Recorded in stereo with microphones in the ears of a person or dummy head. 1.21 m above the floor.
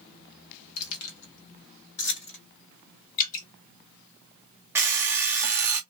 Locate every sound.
0.8 s keys jangling: 85° left, 1.0 m; by 2.4 s 55° left (ahead or behind), 1.2 m
3.2 s dripping: 45° left (ahead or behind), 1.0 m
4.8 s an alarm clock: 20° right (ahead or behind), 0.6 m